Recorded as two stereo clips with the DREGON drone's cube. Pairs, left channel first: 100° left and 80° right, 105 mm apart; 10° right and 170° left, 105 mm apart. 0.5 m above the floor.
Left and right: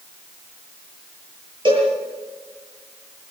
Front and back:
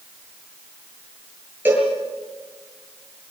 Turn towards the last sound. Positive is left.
turn(degrees=-120)